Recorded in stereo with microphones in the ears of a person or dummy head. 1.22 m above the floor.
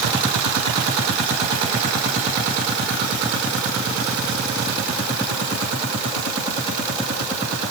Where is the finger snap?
I don't hear a finger snap.